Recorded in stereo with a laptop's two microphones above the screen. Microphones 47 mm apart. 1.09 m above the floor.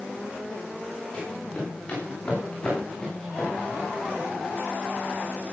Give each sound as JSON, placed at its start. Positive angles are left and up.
{"t": 1.1, "sound": "running footsteps", "side_deg": 20, "distance_m": 9.5}